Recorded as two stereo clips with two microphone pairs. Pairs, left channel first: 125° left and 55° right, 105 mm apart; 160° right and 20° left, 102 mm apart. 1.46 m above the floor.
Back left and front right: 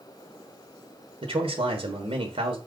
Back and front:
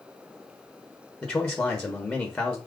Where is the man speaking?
75° right, 1.0 m.